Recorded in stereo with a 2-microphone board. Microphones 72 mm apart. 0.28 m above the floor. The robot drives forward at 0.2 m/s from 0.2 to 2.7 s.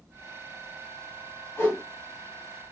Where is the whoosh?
45° left (ahead or behind), 1.8 m.